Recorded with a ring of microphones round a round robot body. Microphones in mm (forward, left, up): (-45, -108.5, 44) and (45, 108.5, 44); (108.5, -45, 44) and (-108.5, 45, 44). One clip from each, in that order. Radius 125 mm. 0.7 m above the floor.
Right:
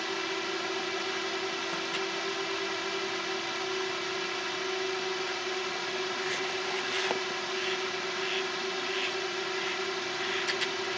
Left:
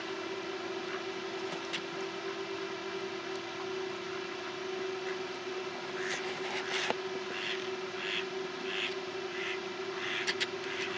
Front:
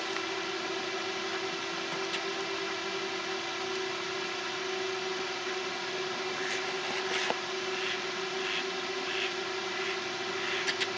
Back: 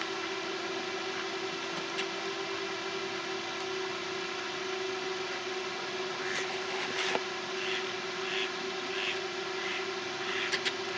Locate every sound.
0.0 s a drone: 100° right